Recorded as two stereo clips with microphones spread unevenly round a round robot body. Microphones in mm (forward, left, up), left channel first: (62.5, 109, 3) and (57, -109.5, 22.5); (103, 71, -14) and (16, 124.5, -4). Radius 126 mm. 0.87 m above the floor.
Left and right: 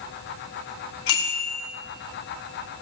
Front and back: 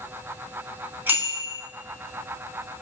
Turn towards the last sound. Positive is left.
turn(degrees=80)